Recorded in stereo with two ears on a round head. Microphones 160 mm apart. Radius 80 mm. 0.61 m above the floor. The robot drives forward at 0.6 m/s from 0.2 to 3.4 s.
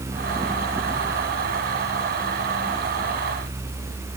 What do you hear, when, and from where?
Only background noise.